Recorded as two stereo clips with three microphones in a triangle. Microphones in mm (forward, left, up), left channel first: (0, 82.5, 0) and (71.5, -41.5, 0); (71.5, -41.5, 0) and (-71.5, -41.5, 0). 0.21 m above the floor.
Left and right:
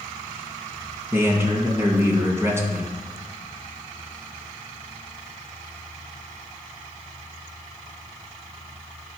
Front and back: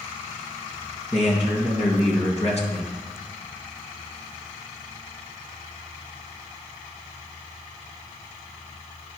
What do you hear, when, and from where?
1.1 s a man speaking: 5° left, 1.9 m